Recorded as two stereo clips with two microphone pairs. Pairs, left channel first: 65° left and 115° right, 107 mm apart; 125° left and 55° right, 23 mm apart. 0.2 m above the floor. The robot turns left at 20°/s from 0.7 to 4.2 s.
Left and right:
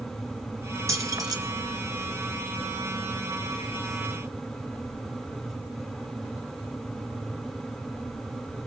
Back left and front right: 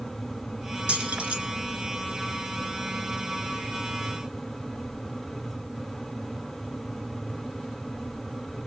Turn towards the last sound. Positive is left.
turn(degrees=-125)